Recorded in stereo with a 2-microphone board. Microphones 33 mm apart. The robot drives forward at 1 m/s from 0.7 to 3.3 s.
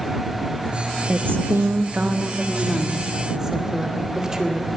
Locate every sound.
1.1 s a woman speaking: 55° right (ahead or behind), 0.7 m; by 4.7 s 15° right (ahead or behind), 2.0 m